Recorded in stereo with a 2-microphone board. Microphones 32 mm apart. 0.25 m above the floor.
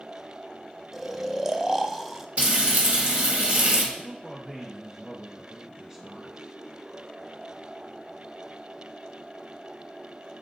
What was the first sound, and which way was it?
Snoring, 15° right (ahead or behind).